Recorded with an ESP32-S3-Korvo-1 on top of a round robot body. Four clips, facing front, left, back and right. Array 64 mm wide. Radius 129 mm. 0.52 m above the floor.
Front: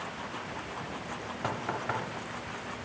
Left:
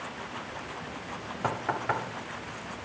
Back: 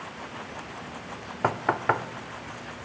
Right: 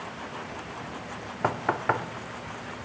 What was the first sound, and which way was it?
Knocking, 155° right.